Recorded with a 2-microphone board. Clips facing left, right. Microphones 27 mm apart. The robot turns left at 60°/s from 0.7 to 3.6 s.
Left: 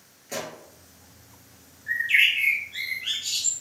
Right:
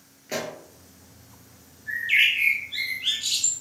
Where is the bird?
Straight ahead, 1.0 m; by 3.5 s 100° right, 1.0 m.